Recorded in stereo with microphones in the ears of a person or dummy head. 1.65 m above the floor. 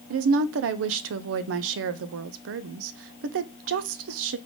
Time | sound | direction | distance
0.1 | a woman speaking | 70° right (ahead or behind) | 0.5 m